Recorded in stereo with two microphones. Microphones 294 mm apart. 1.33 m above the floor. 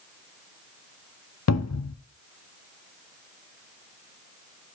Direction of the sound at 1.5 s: 60° left (ahead or behind).